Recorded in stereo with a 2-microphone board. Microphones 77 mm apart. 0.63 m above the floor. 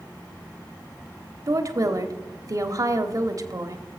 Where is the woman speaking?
50° right (ahead or behind), 1.2 m.